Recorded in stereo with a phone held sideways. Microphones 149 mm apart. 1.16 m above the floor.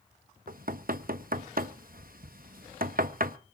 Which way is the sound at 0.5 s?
75° right (ahead or behind).